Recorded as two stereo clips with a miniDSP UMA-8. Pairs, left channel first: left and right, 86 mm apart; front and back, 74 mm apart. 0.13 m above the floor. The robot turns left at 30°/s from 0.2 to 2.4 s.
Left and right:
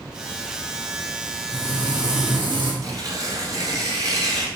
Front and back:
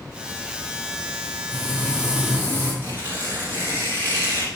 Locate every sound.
1.5 s frying: 90° right, 3.5 m; by 2.7 s 120° right, 3.5 m
2.8 s tearing paper: 125° right, 2.0 m